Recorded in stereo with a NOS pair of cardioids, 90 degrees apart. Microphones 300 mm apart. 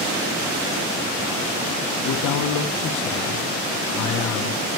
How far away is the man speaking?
About 1.5 m.